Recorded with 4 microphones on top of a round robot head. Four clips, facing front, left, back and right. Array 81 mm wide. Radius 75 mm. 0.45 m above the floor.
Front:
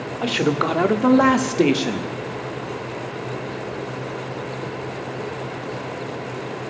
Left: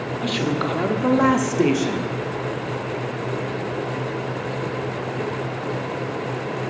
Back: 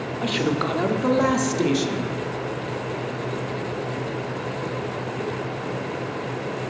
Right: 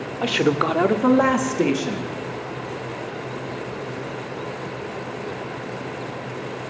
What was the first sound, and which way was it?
A man speaking, 70° right.